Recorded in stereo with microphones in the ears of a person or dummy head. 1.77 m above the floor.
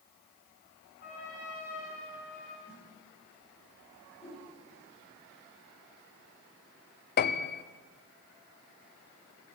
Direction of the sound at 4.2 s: 5° right (ahead or behind).